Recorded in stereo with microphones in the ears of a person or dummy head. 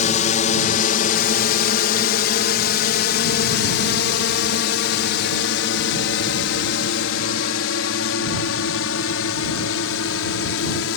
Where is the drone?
40° left (ahead or behind); by 11.0 s 75° left (ahead or behind).